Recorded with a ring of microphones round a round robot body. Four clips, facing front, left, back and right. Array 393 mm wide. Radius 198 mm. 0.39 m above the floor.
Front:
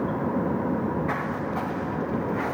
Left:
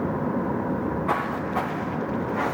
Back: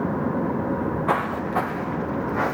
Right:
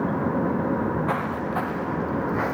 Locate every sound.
0.7 s footsteps: 175° left, 2.0 m; by 2.5 s 160° right, 3 m